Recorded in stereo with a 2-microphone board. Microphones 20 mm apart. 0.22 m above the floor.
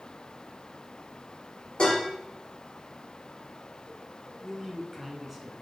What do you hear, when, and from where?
1.8 s dishes clattering: 50° left (ahead or behind), 3 m
4.4 s a man speaking: 5° right (ahead or behind), 2 m